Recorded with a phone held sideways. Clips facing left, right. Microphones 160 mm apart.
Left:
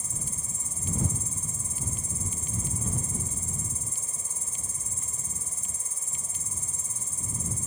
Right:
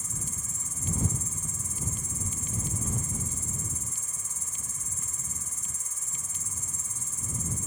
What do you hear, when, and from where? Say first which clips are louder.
0.0 s an insect: even; 30° left (ahead or behind)